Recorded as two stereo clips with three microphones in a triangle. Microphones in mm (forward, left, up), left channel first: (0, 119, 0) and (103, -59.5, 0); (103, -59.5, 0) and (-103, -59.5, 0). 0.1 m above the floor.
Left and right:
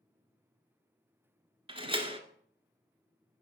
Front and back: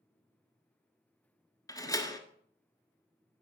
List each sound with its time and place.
1.7 s a door slam: 50° right, 1.0 m